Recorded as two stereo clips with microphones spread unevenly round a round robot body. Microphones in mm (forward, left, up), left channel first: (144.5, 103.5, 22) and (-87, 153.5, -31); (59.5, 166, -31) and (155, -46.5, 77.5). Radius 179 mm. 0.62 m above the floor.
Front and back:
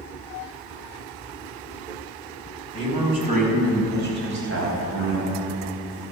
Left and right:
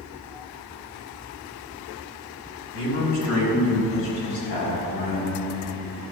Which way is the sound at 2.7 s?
95° left.